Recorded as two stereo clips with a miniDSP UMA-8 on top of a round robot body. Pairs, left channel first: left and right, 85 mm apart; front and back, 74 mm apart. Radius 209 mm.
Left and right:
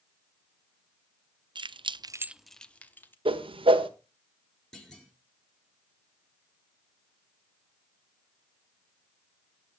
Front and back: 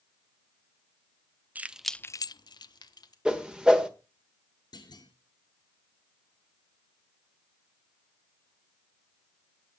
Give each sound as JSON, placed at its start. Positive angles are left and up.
{"t": 1.6, "sound": "keys jangling", "azimuth_deg": -115, "distance_m": 0.9}
{"t": 3.2, "sound": "a whoosh", "azimuth_deg": -100, "distance_m": 1.4}
{"t": 4.7, "sound": "a clunk", "azimuth_deg": 5, "distance_m": 3.5}